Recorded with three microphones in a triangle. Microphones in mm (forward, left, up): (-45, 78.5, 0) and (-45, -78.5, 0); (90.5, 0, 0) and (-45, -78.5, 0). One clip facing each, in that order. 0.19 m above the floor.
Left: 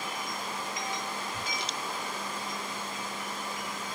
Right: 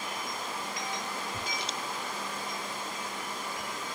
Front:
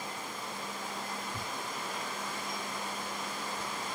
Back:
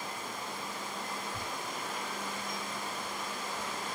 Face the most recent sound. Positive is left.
turn(degrees=-30)